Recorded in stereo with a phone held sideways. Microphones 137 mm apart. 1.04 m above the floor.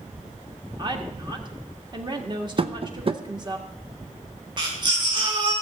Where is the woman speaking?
35° right (ahead or behind), 1.7 m.